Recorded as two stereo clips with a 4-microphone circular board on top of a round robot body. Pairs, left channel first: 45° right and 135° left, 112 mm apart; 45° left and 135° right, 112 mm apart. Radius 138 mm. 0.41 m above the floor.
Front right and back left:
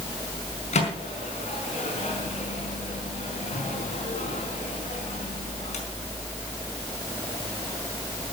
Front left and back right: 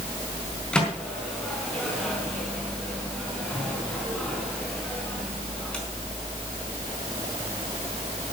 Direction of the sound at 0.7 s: 35° right.